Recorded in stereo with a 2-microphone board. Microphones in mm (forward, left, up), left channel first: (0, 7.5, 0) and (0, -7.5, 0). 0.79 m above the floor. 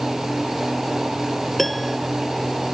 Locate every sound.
1.6 s a piano: 10° left (ahead or behind)